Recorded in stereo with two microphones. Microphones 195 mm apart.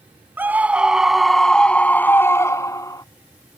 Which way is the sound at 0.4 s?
10° right (ahead or behind).